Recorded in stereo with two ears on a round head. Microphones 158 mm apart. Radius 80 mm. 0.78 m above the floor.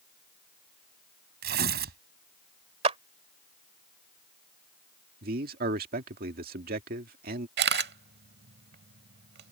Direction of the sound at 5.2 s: 55° right (ahead or behind).